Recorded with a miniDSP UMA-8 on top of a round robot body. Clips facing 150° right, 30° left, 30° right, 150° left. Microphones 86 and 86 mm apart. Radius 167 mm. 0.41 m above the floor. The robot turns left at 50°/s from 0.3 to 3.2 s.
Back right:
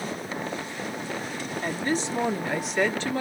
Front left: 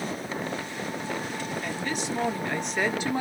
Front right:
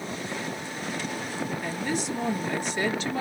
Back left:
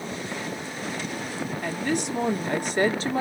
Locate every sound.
1.6 s a woman speaking: 175° left, 1.8 m; by 3.2 s 95° left, 1.8 m